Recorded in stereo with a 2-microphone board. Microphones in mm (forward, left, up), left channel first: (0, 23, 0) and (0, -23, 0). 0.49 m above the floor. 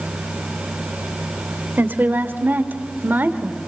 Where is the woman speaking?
50° right (ahead or behind), 2 m; by 3.6 s 40° right (ahead or behind), 1.9 m.